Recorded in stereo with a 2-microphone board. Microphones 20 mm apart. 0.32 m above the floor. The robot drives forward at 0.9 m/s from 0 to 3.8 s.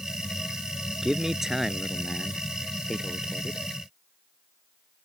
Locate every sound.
1.0 s a man speaking: 25° right (ahead or behind); by 3.6 s 15° right (ahead or behind)